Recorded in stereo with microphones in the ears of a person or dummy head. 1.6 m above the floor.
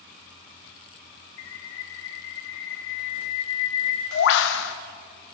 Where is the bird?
60° left (ahead or behind), 0.6 m.